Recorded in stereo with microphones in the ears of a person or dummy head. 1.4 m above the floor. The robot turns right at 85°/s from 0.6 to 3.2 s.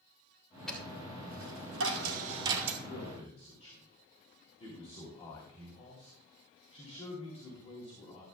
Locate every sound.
0.7 s a dropped coin: 5° right (ahead or behind), 1.8 m; by 2.8 s centre (ahead or behind), 1.8 m
2.9 s a man speaking: 55° left (ahead or behind), 2.5 m; by 8.2 s 25° left (ahead or behind), 2.5 m